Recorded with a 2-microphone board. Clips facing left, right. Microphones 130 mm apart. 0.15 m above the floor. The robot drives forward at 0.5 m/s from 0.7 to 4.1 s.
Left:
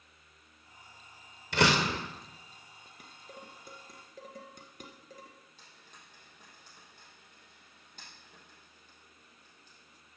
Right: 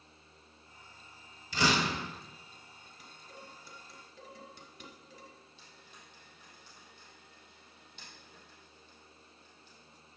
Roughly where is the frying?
Left.